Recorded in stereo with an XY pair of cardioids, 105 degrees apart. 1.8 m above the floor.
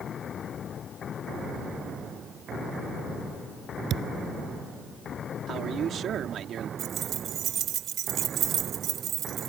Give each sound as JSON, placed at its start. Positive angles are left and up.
{"t": 3.9, "sound": "a thud", "azimuth_deg": -70}
{"t": 5.5, "sound": "a man speaking", "azimuth_deg": -60}
{"t": 6.8, "sound": "keys jangling", "azimuth_deg": -65}